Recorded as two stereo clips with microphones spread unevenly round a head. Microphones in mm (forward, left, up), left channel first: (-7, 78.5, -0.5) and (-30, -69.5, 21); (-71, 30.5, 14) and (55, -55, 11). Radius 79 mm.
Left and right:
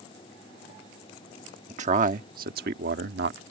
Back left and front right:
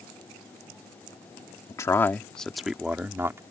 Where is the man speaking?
145° right; by 3.4 s 105° right.